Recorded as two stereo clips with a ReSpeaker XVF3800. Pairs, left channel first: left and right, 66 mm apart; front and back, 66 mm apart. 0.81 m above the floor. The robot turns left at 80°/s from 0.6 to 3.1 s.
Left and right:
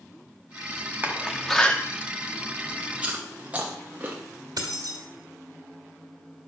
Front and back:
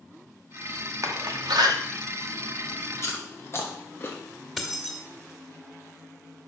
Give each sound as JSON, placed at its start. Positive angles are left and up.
{"t": 1.0, "sound": "a door slam", "azimuth_deg": -145, "distance_m": 0.8}
{"t": 3.0, "sound": "chewing", "azimuth_deg": -20, "distance_m": 1.2}
{"t": 4.6, "sound": "keys jangling", "azimuth_deg": -90, "distance_m": 1.9}